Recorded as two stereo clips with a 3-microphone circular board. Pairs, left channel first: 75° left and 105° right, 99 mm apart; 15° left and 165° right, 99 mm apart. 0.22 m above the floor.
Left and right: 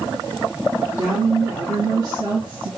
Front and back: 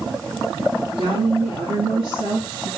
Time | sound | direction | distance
1.0 | a woman speaking | 160° right | 4 m